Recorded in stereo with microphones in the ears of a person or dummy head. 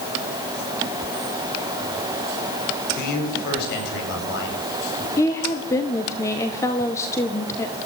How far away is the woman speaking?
About 1.7 m.